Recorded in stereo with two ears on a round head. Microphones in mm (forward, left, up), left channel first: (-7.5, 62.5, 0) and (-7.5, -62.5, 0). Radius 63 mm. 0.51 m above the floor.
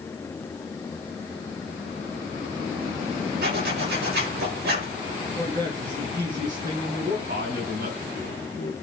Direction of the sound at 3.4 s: 80° right.